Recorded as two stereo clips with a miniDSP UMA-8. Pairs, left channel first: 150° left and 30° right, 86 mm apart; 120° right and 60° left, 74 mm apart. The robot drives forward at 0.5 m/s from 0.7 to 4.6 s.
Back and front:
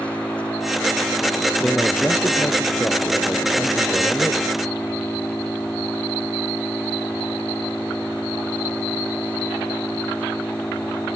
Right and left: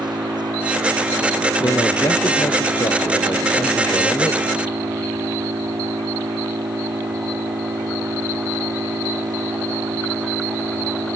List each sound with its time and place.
0.0 s an engine running: 75° left
1.6 s a man speaking: 135° right; by 4.5 s 145° right